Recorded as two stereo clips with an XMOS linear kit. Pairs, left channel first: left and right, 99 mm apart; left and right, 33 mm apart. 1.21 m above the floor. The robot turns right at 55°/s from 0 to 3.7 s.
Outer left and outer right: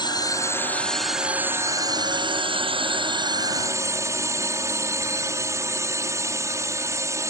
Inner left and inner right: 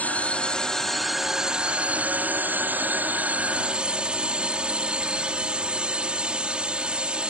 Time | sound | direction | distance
0.0 | a drone | 125° left | ?